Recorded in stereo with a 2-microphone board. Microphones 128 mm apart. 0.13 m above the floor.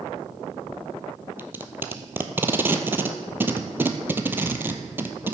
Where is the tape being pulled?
15° right (ahead or behind), 0.9 m.